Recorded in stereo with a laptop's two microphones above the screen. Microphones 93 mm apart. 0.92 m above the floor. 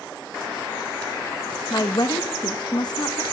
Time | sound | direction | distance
1.7 | a woman speaking | 50° left (ahead or behind) | 1.2 m